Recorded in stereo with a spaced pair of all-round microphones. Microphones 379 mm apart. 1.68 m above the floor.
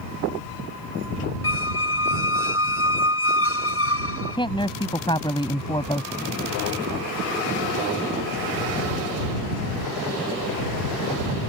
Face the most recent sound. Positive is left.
turn(degrees=10)  # may be behind; listen again after turning